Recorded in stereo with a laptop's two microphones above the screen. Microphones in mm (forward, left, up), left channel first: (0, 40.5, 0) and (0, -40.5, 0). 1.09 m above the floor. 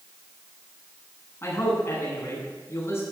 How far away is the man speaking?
About 9.5 m.